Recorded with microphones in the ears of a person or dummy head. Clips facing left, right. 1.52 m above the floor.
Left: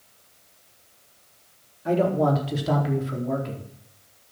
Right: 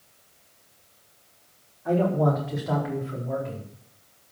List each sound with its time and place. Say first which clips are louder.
1.9 s a man speaking: left 1 dB; 30° left (ahead or behind), 4.5 m; by 3.7 s 60° left (ahead or behind), 4.5 m